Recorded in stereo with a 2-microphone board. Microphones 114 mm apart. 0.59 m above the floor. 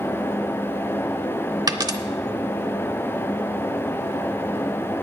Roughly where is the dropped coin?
Right.